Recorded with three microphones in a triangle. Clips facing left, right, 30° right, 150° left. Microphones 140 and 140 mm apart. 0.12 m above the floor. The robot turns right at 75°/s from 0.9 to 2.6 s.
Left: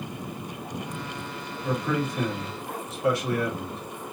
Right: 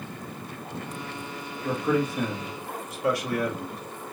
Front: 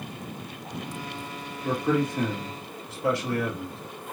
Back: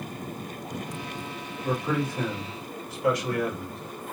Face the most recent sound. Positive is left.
turn(degrees=30)